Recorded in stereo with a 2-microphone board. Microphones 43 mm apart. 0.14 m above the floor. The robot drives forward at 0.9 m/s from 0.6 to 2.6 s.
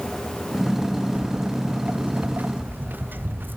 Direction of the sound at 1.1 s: 30° right (ahead or behind).